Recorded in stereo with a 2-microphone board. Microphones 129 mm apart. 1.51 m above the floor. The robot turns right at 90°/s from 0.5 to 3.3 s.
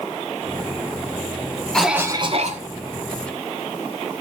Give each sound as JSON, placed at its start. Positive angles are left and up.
{"t": 1.7, "sound": "a cough", "azimuth_deg": 175, "distance_m": 0.8}